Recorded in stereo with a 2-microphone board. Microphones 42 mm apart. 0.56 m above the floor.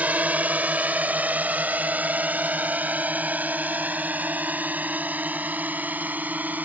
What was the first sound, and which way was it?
A drone, 40° right (ahead or behind).